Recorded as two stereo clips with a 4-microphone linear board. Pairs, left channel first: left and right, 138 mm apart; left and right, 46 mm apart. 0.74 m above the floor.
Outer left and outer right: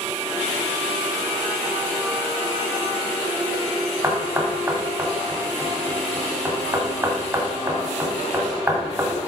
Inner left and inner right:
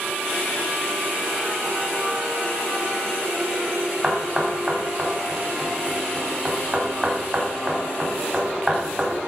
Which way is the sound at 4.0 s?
25° right (ahead or behind).